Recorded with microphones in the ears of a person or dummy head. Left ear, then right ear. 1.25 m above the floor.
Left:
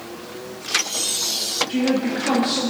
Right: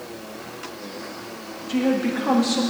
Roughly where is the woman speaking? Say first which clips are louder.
Left 1 dB; centre.